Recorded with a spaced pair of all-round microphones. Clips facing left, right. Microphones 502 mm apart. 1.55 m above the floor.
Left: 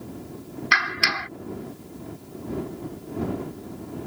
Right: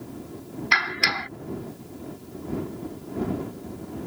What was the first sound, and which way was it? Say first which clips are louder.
A clap: even; 35° left (ahead or behind).